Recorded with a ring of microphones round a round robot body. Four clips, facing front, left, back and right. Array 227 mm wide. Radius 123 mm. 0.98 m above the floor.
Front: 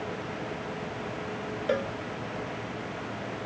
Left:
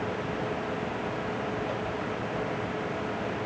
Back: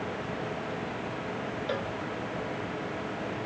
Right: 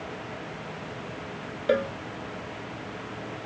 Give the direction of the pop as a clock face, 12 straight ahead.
I don't hear a pop.